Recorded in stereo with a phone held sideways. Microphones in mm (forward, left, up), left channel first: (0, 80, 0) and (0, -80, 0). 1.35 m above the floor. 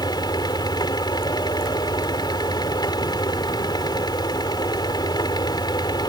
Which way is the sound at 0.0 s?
25° left (ahead or behind).